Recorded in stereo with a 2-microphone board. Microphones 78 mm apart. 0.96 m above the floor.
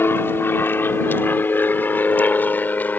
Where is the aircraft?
30° left (ahead or behind); by 3.0 s 20° left (ahead or behind).